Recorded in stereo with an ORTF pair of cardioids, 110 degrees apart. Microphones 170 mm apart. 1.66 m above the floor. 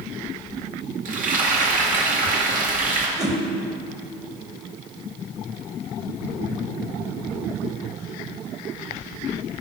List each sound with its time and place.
1.1 s frying: 50° right, 2 m
3.2 s a whoosh: 20° right, 1.7 m